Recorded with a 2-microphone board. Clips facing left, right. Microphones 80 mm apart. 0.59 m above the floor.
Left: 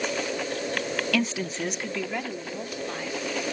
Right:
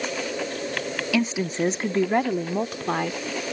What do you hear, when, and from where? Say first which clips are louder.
1.1 s a woman speaking: right 6 dB; 5° right (ahead or behind); by 3.2 s 60° right (ahead or behind)